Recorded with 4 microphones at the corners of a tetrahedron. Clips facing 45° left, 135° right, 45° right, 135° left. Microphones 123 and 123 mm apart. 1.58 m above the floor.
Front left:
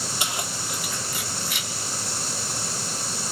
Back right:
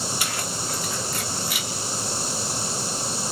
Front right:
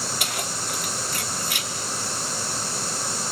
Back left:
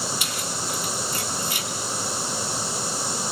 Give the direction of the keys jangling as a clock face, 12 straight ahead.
1 o'clock.